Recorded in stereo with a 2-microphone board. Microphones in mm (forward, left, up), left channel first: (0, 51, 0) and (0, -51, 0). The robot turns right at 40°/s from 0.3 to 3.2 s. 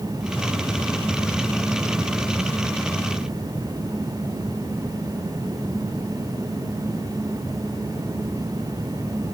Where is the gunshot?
I don't hear a gunshot.